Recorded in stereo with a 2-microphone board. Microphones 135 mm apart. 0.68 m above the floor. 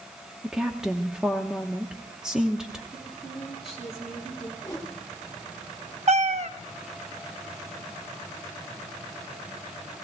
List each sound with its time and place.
0.4 s a woman speaking: 5° right (ahead or behind), 0.9 m
2.9 s a woman speaking: 5° right (ahead or behind), 6 m
4.6 s a whoosh: 25° left (ahead or behind), 1.2 m
6.1 s a cat meowing: 55° right (ahead or behind), 0.6 m